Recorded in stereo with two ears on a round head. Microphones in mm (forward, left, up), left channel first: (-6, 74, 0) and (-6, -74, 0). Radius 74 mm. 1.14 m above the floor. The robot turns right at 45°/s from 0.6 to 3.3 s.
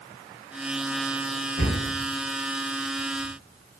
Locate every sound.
1.6 s a cupboard door: 80° left, 1.2 m